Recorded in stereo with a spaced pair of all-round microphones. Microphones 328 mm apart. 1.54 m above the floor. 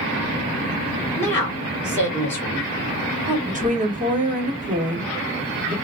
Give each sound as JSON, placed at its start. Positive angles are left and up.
{"t": 1.2, "sound": "a woman speaking", "side_deg": 5, "distance_m": 1.8}
{"t": 3.5, "sound": "a woman speaking", "side_deg": -25, "distance_m": 1.1}